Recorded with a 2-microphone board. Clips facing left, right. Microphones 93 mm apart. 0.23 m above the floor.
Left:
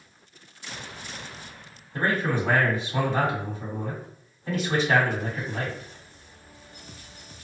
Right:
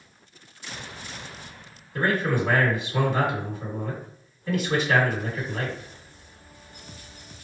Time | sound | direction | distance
1.9 | a man speaking | 40° left (ahead or behind) | 1.7 m